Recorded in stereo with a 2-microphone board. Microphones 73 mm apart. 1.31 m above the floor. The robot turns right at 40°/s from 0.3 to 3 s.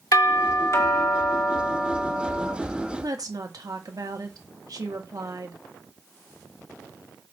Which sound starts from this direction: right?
A woman speaking, at 3.0 s.